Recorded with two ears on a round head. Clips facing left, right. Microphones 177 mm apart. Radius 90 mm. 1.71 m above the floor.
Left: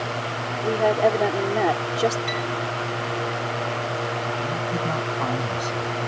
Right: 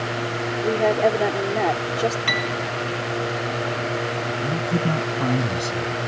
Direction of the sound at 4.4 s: 30° right (ahead or behind).